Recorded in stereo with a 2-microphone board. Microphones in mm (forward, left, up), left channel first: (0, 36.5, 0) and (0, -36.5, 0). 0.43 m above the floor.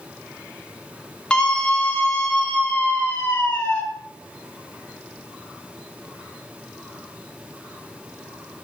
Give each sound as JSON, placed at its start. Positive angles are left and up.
{"t": 1.3, "sound": "a scream", "side_deg": 10, "distance_m": 3.5}